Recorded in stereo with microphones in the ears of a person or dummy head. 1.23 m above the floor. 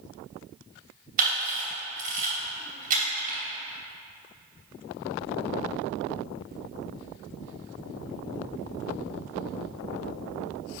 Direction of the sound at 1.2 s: 40° right (ahead or behind).